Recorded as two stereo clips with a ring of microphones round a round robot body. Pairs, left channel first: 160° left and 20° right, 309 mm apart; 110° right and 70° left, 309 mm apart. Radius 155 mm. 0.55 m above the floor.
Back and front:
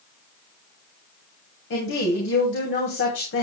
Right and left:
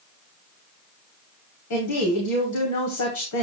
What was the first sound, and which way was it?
A woman speaking, 150° right.